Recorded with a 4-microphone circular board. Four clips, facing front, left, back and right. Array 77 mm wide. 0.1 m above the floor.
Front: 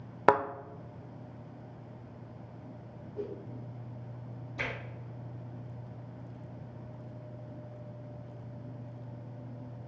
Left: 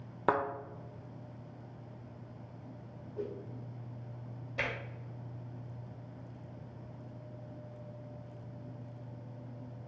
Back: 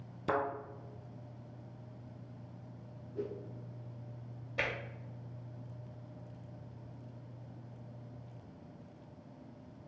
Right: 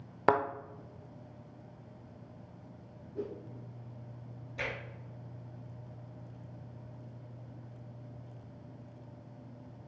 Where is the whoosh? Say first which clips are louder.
Even, front 1 dB; 115° right, 2.5 m.